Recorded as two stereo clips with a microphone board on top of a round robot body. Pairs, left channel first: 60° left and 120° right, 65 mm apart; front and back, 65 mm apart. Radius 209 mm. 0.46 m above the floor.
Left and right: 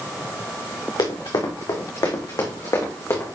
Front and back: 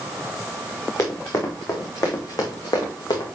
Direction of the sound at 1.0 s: 45° left.